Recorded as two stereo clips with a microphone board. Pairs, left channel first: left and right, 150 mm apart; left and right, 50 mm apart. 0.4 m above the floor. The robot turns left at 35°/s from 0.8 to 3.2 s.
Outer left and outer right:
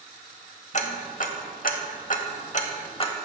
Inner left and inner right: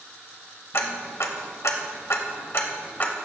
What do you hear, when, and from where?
0.7 s ticking: 55° left (ahead or behind), 0.8 m; by 3.1 s 35° left (ahead or behind), 0.8 m